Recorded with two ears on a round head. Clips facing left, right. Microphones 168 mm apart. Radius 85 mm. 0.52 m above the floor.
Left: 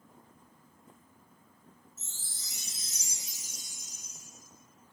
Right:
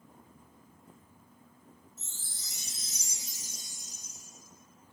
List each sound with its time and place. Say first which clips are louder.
2.0 s a chime: right 1 dB; centre (ahead or behind), 0.7 m